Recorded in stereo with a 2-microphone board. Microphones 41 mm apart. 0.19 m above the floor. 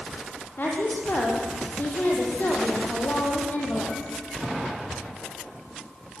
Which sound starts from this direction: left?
A woman speaking, at 0.6 s.